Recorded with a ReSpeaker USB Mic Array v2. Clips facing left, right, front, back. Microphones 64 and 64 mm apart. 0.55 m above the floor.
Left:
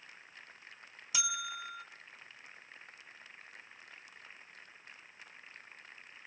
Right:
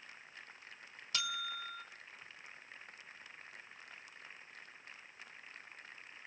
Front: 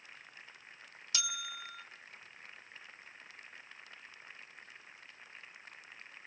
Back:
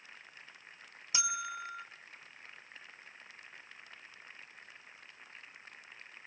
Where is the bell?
155° left, 0.6 m.